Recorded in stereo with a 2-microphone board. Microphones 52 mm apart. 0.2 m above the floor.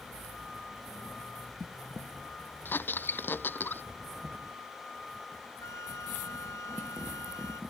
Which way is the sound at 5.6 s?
75° left (ahead or behind).